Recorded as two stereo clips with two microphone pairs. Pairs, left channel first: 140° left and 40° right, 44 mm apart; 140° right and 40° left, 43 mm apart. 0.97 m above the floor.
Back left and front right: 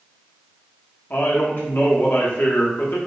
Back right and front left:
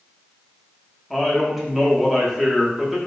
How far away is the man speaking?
About 1.0 m.